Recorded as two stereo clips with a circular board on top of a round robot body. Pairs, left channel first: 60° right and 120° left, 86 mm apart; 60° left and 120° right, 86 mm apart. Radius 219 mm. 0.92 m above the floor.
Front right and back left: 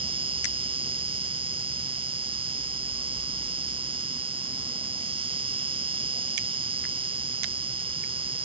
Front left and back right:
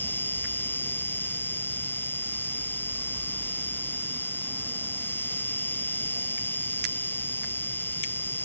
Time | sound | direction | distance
0.0 | an insect | 125° left | ?